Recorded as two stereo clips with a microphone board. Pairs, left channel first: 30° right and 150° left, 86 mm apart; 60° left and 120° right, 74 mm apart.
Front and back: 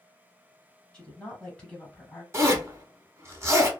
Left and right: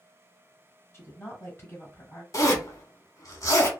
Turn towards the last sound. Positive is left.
turn(degrees=95)